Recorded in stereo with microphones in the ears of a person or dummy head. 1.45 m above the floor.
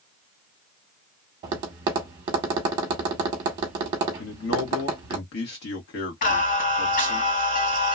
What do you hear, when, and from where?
1.4 s tapping: 30° right (ahead or behind), 1.0 m
4.2 s a man speaking: 60° left (ahead or behind), 1.2 m
6.2 s singing: 45° left (ahead or behind), 2.5 m